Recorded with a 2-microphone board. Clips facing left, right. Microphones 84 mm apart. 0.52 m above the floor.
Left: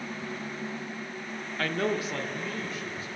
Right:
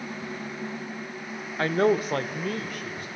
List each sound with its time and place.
1.6 s a man speaking: 25° right (ahead or behind), 0.7 m; by 3.1 s 70° right (ahead or behind), 2 m